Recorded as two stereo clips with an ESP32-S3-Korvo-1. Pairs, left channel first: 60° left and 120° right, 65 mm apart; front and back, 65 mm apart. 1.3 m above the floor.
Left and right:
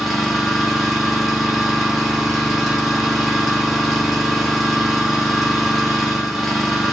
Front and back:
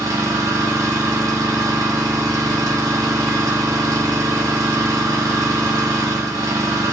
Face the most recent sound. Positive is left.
turn(degrees=155)